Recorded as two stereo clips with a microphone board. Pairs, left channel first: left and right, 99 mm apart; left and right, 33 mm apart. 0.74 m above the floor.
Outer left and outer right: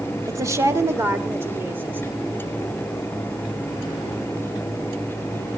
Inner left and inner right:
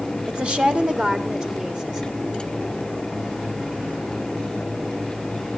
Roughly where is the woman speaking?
Right.